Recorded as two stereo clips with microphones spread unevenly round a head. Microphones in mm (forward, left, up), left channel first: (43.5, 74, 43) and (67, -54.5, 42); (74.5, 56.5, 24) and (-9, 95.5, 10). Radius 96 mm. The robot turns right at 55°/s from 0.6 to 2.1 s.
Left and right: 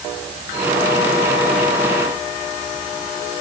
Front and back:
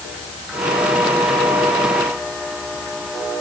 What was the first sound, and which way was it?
Only background noise.